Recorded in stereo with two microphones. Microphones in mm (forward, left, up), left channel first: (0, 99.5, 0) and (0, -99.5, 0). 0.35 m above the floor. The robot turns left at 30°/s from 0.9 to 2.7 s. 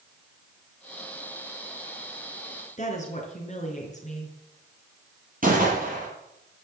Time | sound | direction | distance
2.8 | a woman speaking | 40° left (ahead or behind) | 4.5 m
5.4 | a gunshot | 45° right (ahead or behind) | 6 m